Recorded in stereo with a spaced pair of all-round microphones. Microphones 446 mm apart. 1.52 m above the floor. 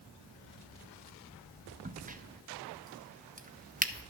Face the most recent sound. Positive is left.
turn(degrees=-20)  # may be behind; listen again after turning